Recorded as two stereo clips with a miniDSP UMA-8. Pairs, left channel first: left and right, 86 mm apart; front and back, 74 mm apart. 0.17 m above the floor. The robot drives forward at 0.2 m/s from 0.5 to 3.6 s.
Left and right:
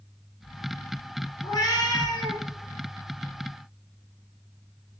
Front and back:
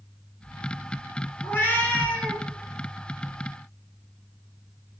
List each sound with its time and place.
1.4 s a cat meowing: 55° left, 0.5 m; by 2.4 s 75° left, 0.5 m